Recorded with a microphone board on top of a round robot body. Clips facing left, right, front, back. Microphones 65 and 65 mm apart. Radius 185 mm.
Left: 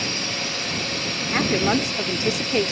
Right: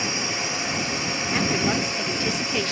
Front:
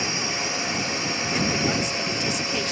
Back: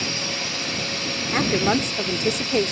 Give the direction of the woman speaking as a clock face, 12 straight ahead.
7 o'clock.